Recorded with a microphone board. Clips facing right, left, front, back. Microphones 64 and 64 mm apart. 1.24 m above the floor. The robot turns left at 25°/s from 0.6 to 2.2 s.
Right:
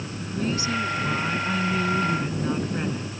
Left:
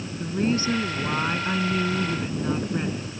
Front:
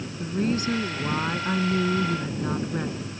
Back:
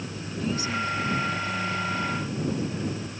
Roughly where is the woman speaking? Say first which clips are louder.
Left 4 dB, front 5 dB; ahead left.